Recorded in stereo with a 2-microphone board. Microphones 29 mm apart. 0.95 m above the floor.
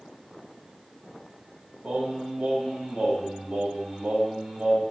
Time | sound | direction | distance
1.8 | singing | 70° right (ahead or behind) | 2.5 m